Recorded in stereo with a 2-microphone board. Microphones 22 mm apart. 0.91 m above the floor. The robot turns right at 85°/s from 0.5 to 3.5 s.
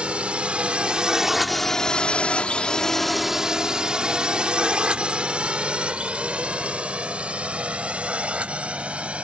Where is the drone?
65° right (ahead or behind); by 9.3 s 80° right.